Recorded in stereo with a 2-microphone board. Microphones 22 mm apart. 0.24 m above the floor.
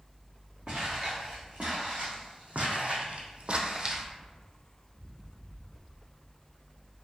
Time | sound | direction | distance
0.7 | footsteps | 60° right (ahead or behind) | 1.7 m